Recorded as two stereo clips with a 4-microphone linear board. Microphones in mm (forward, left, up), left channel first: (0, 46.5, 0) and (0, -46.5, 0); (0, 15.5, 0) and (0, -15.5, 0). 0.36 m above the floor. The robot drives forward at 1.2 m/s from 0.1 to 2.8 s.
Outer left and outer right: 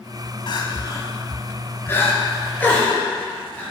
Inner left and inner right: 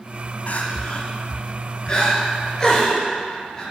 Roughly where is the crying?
Left.